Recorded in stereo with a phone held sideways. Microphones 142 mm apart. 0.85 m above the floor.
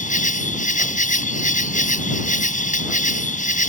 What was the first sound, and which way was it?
An insect, 65° left (ahead or behind).